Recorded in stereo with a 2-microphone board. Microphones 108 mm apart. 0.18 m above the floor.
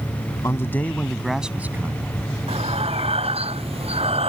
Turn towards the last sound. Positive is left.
turn(degrees=-65)  # may be behind; listen again after turning